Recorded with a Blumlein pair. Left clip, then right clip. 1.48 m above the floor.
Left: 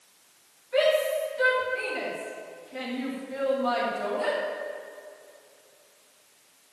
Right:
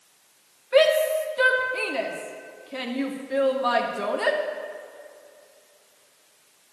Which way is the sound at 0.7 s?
60° right.